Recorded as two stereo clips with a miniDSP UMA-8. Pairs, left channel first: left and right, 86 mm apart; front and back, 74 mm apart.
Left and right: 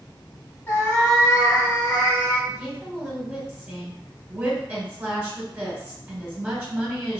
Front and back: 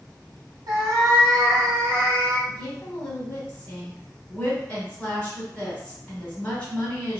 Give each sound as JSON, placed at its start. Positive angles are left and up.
{"t": 0.7, "sound": "a cat meowing", "azimuth_deg": 150, "distance_m": 1.4}
{"t": 2.5, "sound": "a woman speaking", "azimuth_deg": -45, "distance_m": 1.2}